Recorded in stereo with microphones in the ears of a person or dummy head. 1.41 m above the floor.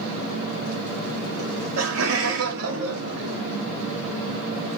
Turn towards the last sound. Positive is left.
turn(degrees=-90)